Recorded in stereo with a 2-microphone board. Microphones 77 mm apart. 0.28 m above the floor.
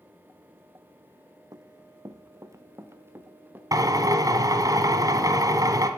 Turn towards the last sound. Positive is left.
turn(degrees=-55)  # may be behind; listen again after turning